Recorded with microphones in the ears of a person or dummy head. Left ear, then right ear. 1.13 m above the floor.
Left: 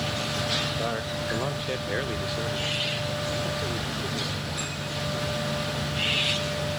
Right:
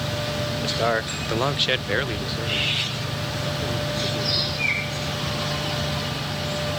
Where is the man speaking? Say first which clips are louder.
Right 8 dB; 60° right (ahead or behind); by 5.1 s 30° left (ahead or behind).